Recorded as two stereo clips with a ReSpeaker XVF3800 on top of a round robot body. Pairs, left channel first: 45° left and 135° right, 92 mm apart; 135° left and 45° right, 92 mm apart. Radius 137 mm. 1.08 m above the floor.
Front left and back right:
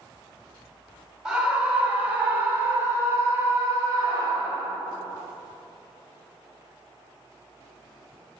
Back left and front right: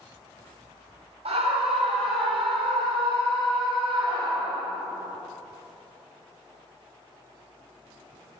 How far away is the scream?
About 4 m.